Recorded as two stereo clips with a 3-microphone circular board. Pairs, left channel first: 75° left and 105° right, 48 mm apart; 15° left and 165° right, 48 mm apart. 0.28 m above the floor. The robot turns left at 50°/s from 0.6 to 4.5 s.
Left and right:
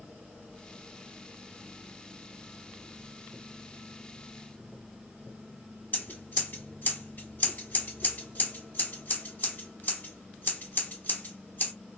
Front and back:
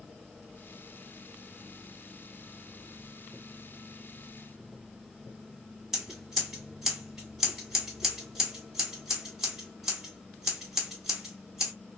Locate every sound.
5.9 s scissors: 115° left, 1.6 m